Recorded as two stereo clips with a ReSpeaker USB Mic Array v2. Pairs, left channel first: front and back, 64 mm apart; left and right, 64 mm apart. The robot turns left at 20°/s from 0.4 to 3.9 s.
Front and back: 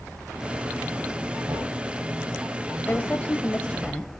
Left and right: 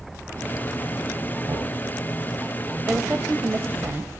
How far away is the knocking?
About 7 m.